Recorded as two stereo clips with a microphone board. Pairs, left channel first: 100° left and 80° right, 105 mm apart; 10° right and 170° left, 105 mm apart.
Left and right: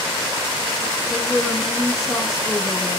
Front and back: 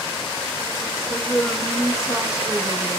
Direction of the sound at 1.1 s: 5° left.